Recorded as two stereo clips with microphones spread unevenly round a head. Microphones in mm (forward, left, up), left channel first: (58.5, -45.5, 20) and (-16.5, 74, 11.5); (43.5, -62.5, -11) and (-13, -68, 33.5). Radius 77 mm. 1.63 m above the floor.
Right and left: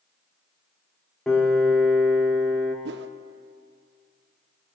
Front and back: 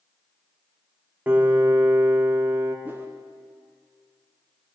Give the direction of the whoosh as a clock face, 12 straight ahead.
8 o'clock.